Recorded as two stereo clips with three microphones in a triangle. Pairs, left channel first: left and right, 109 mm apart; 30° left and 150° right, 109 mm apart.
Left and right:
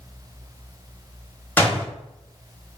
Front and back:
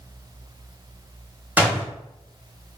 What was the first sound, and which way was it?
A door slam, 150° left.